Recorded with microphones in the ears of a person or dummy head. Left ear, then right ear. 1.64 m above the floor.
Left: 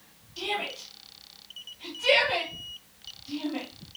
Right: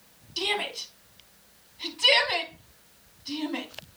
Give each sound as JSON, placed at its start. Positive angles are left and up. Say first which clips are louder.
{"t": 0.4, "sound": "a shout", "louder": "right 3 dB", "side_deg": -40, "distance_m": 3.0}